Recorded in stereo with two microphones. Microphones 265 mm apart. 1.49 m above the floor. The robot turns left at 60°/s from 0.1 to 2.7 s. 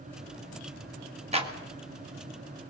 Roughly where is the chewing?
I don't hear chewing.